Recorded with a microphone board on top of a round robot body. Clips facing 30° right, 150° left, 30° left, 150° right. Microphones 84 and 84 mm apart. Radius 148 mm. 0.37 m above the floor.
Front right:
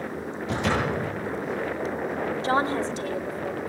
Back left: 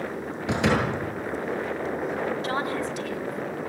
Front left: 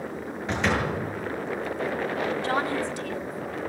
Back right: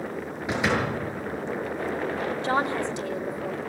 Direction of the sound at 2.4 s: 85° right.